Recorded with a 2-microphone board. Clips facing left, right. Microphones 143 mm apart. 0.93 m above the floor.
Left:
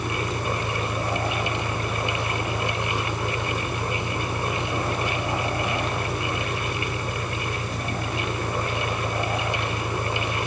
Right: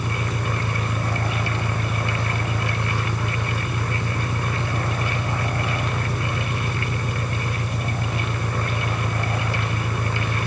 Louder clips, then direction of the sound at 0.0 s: Even; 75° right (ahead or behind).